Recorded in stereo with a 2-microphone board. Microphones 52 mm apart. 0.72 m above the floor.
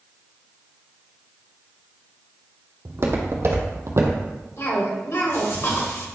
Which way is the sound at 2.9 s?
50° right (ahead or behind).